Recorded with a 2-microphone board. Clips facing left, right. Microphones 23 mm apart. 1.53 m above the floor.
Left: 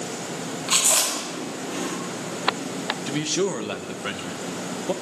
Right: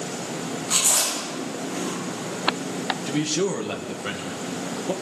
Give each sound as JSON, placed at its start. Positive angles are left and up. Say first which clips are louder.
{"t": 0.7, "sound": "chewing", "louder": "left 1 dB", "side_deg": 80, "distance_m": 10.0}
{"t": 3.1, "sound": "a man speaking", "louder": "even", "side_deg": 10, "distance_m": 1.9}